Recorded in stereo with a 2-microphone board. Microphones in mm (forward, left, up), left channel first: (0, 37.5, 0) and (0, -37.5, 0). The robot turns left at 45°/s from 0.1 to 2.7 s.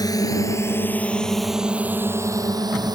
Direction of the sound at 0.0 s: 50° left (ahead or behind).